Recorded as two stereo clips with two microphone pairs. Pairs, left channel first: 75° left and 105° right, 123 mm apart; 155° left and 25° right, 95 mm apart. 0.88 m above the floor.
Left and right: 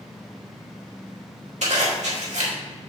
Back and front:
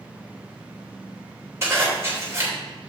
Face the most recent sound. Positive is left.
turn(degrees=-85)